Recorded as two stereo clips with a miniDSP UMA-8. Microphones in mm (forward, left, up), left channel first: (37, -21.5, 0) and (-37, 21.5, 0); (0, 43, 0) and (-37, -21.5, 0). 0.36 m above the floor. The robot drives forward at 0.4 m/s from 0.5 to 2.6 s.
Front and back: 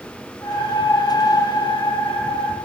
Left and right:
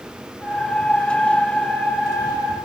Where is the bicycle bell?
I don't hear a bicycle bell.